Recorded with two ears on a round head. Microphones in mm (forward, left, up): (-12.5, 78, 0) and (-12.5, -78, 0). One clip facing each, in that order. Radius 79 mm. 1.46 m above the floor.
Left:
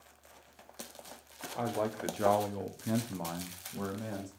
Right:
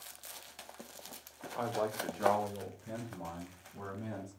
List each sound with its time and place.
1.6 s a man speaking: 10° left (ahead or behind), 0.9 m; by 4.3 s 60° left (ahead or behind), 1.3 m